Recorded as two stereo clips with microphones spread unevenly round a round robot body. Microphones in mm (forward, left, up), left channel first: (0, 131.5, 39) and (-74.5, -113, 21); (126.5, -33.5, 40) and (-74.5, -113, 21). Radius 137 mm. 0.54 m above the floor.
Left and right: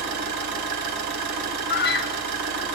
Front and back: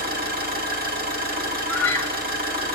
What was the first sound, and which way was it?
An engine running, 115° right.